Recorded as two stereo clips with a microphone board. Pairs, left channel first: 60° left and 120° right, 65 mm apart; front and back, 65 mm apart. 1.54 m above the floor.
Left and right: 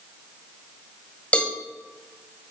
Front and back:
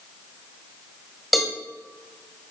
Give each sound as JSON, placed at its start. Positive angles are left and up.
{"t": 1.3, "sound": "a cowbell", "azimuth_deg": 90, "distance_m": 1.4}